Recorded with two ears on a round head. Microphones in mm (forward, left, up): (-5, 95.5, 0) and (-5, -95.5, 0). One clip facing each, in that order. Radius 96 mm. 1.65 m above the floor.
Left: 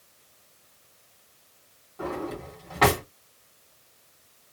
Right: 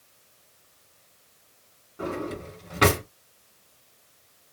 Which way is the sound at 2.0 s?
15° right (ahead or behind).